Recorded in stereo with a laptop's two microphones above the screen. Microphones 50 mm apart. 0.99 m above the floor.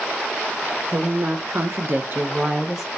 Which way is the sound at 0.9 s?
60° right (ahead or behind).